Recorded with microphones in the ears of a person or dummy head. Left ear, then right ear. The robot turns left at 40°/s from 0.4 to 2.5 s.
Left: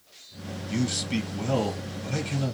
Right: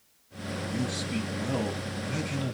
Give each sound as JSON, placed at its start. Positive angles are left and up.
{"t": 0.7, "sound": "a man speaking", "azimuth_deg": 75, "distance_m": 1.5}